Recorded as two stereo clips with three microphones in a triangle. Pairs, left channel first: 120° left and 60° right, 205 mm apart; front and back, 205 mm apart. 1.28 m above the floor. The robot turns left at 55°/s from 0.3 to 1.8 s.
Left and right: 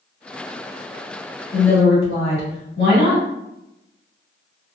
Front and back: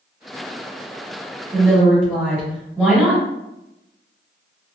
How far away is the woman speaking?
About 1.7 m.